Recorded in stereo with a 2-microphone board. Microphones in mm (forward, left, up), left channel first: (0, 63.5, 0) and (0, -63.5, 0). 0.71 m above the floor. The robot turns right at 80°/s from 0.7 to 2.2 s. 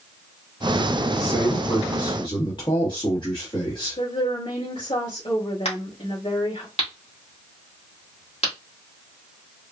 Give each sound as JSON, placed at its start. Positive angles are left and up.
{"t": 1.1, "sound": "a man speaking", "azimuth_deg": 0, "distance_m": 1.4}
{"t": 4.0, "sound": "a woman speaking", "side_deg": 60, "distance_m": 2.5}
{"t": 5.7, "sound": "a crack", "side_deg": 50, "distance_m": 2.0}